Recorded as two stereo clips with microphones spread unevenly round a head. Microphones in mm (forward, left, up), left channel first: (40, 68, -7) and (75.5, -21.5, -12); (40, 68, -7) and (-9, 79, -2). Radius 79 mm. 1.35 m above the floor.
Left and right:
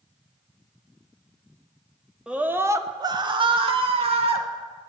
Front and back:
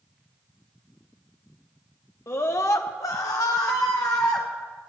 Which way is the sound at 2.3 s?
15° left.